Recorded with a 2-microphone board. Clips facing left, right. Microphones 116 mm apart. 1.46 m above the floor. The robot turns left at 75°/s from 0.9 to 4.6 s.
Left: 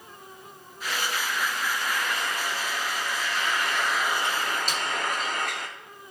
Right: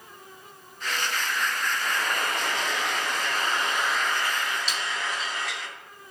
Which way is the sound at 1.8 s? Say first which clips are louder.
Right 1 dB; 20° right.